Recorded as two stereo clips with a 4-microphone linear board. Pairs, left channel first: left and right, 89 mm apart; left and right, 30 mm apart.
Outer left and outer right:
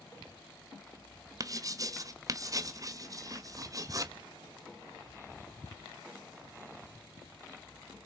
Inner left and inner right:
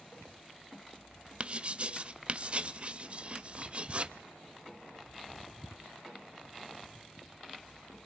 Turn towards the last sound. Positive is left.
turn(degrees=-40)  # may be behind; listen again after turning